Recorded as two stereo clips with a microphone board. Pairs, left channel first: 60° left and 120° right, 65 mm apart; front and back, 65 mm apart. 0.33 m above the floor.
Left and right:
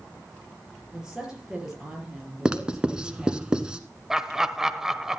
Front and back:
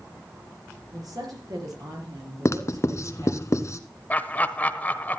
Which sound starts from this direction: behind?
A woman speaking, at 0.9 s.